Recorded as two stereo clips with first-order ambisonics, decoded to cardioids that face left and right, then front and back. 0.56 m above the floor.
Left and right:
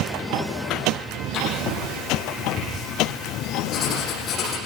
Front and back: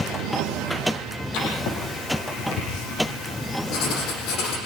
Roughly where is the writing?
Ahead left.